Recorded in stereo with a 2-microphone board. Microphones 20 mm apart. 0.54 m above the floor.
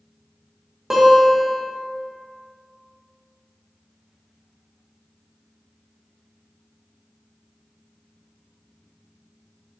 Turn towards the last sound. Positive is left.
turn(degrees=-30)  # may be behind; listen again after turning